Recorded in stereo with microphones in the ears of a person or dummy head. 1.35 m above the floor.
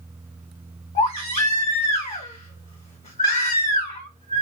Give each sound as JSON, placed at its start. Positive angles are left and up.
{"t": 0.9, "sound": "a baby crying", "side_deg": 30, "distance_m": 1.3}